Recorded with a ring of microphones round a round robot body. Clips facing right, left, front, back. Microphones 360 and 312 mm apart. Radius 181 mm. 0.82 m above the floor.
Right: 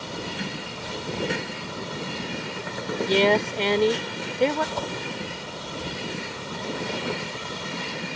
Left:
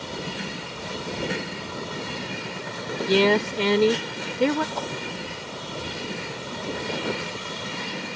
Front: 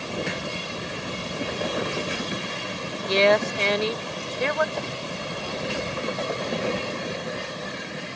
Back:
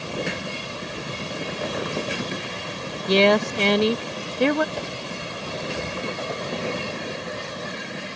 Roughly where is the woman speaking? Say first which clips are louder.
Left 2 dB, back 3 dB; behind left.